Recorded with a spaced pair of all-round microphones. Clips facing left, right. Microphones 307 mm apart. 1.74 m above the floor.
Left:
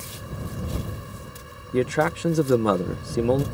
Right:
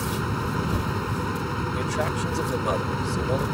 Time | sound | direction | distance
0.0 | a fan | 85° right | ?
1.7 | a man speaking | 70° left (ahead or behind) | ?